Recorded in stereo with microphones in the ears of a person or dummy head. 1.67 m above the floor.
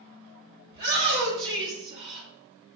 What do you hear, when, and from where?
0.7 s a shout: 25° right (ahead or behind), 1.5 m